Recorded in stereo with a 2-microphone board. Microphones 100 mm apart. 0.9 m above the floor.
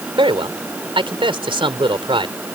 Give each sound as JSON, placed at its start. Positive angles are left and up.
{"t": 0.2, "sound": "a man speaking", "side_deg": -60}